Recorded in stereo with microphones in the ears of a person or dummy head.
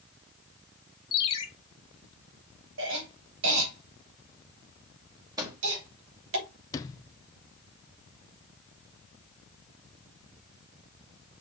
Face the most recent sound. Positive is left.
turn(degrees=20)  # may be behind; listen again after turning